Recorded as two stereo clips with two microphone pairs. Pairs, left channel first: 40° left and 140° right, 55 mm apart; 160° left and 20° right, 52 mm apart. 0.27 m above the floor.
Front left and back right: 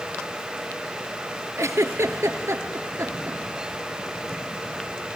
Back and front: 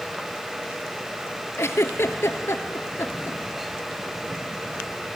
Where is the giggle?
165° right, 0.9 m.